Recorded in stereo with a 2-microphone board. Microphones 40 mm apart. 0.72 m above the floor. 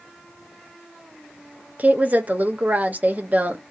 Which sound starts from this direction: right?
A woman speaking, at 1.8 s.